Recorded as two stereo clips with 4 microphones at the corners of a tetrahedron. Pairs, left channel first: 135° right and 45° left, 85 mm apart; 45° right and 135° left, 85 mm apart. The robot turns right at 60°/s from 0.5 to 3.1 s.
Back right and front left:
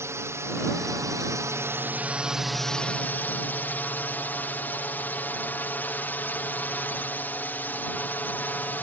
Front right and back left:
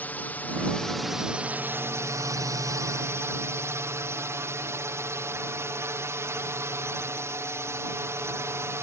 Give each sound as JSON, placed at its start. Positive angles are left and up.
{"t": 0.0, "sound": "a drone", "azimuth_deg": 15}